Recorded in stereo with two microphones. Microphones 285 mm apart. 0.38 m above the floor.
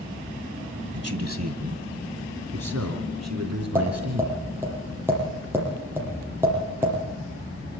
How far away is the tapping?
About 8 m.